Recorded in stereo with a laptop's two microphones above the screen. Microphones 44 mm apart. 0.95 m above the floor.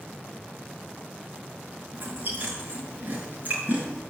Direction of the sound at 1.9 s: 40° right (ahead or behind).